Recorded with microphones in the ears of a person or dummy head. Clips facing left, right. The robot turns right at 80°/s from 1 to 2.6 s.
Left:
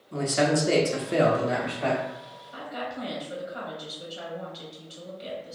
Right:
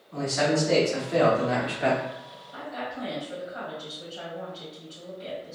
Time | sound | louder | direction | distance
0.1 | a man speaking | left 1 dB | 135° left | 0.7 m
2.5 | a woman speaking | even | 25° left (ahead or behind) | 1.8 m